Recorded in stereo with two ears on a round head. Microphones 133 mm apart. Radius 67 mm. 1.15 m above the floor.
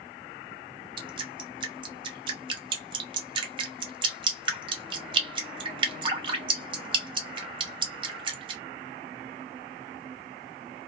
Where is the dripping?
35° right (ahead or behind), 0.7 m.